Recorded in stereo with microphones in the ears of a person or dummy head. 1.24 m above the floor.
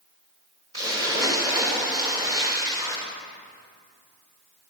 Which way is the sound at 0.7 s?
20° right (ahead or behind).